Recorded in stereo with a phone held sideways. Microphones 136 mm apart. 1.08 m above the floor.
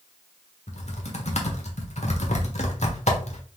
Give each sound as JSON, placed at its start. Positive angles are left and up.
{"t": 0.7, "sound": "typing on a keyboard", "side_deg": 55, "distance_m": 1.1}